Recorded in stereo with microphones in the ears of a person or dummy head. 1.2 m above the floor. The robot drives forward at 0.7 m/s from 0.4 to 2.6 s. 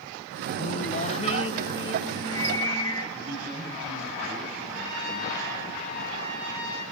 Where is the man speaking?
25° right (ahead or behind), 9 m.